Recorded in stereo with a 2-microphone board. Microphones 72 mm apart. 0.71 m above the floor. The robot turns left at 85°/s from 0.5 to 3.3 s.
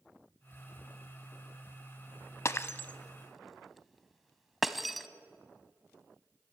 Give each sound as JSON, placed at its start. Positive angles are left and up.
{"t": 2.5, "sound": "breaking glass", "side_deg": 45, "distance_m": 0.7}